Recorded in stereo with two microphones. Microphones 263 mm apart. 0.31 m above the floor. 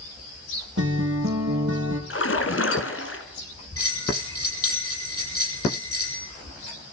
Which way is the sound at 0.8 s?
50° right (ahead or behind).